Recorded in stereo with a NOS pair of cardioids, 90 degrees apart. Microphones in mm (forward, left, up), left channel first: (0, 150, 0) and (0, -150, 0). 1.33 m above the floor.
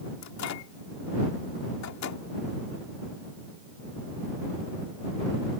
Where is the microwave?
65° left.